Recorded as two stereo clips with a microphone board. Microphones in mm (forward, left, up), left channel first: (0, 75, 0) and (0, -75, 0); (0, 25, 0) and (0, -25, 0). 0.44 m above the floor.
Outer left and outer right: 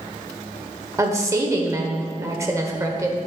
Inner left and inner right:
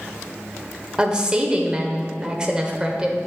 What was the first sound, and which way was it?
A woman speaking, 20° right (ahead or behind).